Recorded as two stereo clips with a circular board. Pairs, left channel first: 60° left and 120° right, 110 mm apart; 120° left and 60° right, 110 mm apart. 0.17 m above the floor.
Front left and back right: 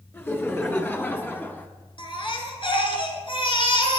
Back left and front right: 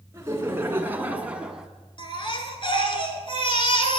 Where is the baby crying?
90° left, 1.7 m.